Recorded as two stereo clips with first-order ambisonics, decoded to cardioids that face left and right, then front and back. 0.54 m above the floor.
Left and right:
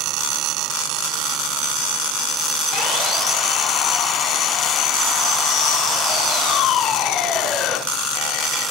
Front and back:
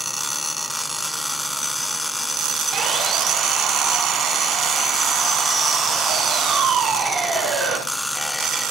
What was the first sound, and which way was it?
Sawing, 135° left.